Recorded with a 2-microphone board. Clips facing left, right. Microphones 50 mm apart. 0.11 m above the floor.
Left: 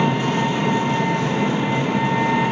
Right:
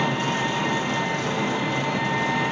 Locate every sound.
0.0 s an engine running: 25° left (ahead or behind), 0.9 m